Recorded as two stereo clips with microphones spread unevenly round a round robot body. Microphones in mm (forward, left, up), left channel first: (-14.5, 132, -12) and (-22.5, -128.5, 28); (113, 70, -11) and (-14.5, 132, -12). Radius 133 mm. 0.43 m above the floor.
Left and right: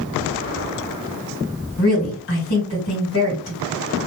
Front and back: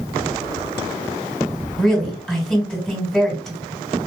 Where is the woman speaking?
60° left, 2.5 m.